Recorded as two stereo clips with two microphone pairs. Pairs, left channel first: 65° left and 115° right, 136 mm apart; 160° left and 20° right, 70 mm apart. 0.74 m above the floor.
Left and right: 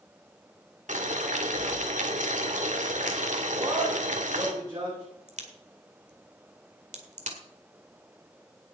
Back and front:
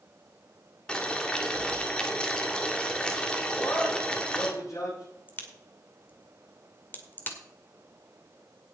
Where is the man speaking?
175° right, 7 m.